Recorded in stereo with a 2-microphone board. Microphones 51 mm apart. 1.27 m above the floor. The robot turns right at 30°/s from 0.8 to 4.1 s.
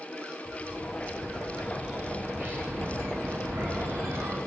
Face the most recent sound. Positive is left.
turn(degrees=-95)